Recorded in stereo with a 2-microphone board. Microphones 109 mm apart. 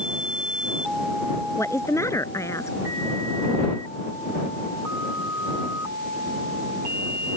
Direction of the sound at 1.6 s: 30° left (ahead or behind).